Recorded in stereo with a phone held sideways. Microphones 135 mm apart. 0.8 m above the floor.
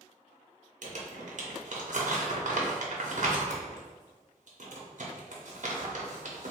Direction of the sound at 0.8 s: 65° right (ahead or behind).